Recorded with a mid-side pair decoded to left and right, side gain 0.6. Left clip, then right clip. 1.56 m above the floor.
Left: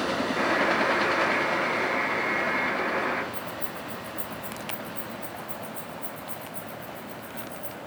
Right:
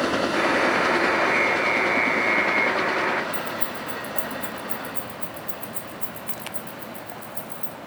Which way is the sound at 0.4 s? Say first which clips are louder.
Right 2 dB; 35° right.